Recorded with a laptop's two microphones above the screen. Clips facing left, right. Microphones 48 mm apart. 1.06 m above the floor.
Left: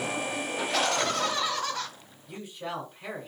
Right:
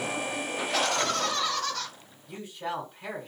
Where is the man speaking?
5° left (ahead or behind), 2.5 m.